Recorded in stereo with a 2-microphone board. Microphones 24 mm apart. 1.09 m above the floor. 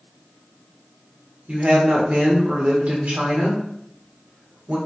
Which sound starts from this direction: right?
A woman speaking, at 1.5 s.